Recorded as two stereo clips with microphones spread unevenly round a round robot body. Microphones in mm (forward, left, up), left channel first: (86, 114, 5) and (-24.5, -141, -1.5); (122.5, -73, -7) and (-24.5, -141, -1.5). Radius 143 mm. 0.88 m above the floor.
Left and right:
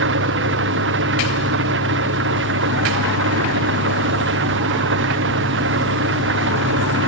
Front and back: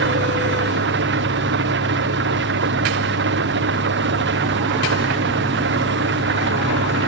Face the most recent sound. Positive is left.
turn(degrees=-170)